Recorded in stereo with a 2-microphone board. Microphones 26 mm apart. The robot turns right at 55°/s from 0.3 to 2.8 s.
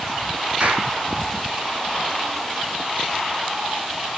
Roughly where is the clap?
Right.